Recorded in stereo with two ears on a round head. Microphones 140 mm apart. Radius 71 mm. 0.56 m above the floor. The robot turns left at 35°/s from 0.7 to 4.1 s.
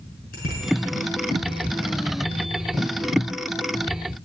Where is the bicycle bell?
65° left (ahead or behind), 5 m.